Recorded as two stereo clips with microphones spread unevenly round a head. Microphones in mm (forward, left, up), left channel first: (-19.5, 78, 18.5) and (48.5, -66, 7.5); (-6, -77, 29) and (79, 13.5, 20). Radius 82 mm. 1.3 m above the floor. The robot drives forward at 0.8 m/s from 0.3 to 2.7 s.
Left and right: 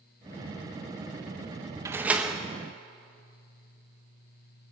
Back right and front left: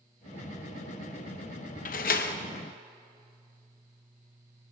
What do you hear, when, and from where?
1.9 s a door slam: 140° right, 0.7 m; by 2.4 s 155° right, 1.0 m